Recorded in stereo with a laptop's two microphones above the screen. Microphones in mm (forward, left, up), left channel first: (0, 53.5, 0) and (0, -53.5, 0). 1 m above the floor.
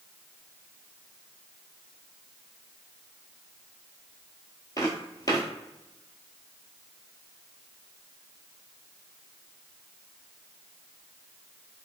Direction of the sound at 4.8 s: 35° left (ahead or behind).